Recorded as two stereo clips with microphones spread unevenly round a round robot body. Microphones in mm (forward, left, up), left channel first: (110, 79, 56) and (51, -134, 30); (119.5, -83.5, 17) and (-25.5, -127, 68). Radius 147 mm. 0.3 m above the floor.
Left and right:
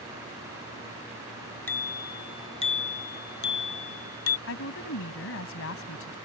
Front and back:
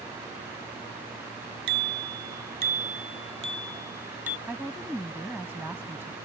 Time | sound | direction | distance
1.7 | a bicycle bell | 155° left | ?
4.5 | a woman speaking | 110° left | ?